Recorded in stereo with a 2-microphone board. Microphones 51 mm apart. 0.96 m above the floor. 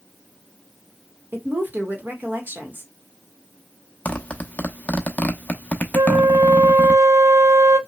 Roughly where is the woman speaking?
Right.